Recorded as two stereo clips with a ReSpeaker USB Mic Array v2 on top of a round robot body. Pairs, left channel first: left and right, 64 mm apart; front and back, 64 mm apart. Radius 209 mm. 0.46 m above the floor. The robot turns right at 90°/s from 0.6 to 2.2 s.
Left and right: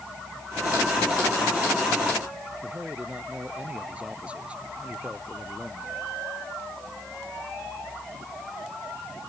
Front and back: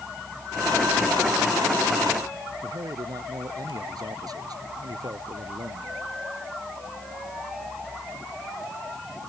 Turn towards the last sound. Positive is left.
turn(degrees=-160)